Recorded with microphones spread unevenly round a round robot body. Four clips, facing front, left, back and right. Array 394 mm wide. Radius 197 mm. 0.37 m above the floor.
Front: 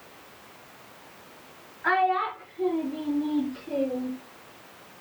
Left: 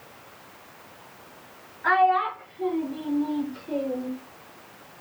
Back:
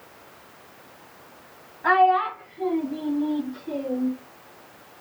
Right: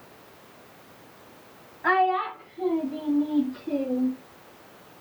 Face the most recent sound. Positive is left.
turn(degrees=-95)